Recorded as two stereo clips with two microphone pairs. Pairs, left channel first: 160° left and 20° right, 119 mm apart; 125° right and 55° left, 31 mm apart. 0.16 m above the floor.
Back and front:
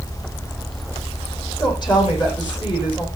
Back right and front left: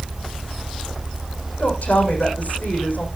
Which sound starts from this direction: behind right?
A woman speaking, at 1.6 s.